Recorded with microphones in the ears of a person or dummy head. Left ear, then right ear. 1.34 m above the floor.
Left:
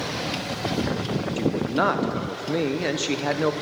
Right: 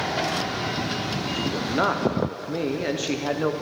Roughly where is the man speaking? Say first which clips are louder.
Left 1 dB; centre.